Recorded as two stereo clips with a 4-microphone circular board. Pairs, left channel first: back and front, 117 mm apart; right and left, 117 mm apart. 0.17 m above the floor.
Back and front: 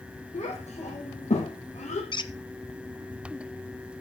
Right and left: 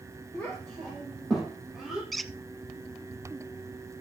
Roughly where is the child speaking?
Behind.